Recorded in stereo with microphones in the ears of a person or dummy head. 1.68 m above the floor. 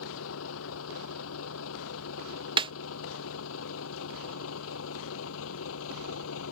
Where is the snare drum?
25° right (ahead or behind).